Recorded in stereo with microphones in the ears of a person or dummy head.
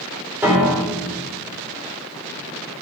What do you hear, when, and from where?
0.4 s a piano: 15° right (ahead or behind), 3.5 m